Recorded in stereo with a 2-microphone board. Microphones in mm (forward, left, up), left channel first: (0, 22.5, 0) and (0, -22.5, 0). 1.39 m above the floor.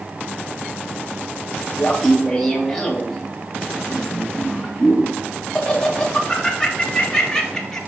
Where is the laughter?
10° left (ahead or behind), 1.9 m.